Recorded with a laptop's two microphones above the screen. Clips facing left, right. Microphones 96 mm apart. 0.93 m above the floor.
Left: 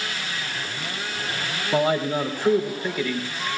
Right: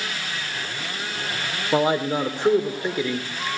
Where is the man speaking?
20° right (ahead or behind), 3 m.